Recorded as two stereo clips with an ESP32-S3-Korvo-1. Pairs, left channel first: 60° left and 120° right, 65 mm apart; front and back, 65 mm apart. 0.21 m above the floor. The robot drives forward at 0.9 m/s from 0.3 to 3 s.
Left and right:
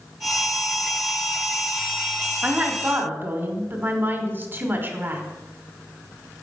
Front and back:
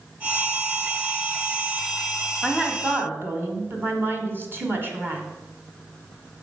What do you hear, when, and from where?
2.4 s a woman speaking: 110° right, 1.0 m; by 5.2 s 150° right, 1.2 m